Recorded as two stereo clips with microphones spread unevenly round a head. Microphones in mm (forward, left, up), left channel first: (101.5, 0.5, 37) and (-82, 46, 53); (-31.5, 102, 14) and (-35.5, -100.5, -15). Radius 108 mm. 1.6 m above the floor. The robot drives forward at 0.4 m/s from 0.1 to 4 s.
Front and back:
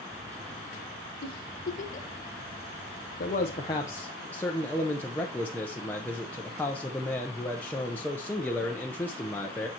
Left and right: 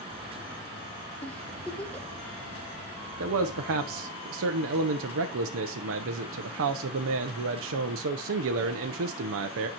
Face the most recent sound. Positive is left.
turn(degrees=-100)